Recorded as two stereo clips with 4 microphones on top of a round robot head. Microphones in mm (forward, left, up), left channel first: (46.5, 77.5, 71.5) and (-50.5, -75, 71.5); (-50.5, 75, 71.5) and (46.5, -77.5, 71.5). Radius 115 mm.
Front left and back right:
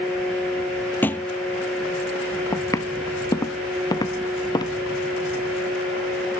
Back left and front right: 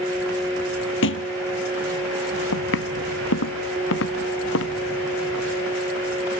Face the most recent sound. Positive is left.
turn(degrees=125)